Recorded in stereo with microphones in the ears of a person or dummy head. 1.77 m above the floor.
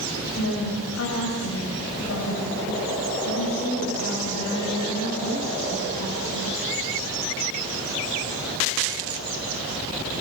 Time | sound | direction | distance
0.4 | a woman speaking | 85° left | 7.5 m